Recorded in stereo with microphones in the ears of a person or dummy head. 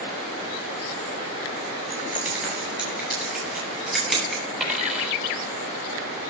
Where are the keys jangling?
10° right (ahead or behind), 9.5 m; by 4.4 s 5° right (ahead or behind), 10.5 m.